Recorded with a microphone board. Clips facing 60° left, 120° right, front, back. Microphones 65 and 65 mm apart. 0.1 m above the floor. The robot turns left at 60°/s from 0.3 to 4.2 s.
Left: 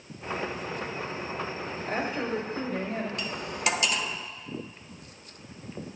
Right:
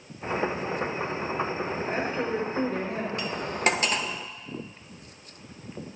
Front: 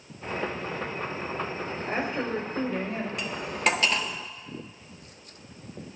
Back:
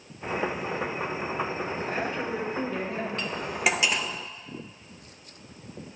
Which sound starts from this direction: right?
Cutlery clinking, at 3.2 s.